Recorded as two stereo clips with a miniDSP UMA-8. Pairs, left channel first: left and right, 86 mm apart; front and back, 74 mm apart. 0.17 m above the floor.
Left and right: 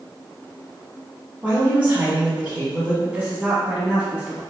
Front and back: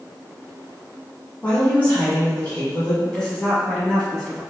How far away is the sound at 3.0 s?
About 1.1 m.